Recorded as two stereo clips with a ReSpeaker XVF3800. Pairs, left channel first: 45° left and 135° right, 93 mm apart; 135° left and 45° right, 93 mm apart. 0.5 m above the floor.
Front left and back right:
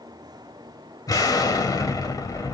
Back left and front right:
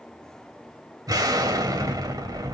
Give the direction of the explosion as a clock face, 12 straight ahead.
12 o'clock.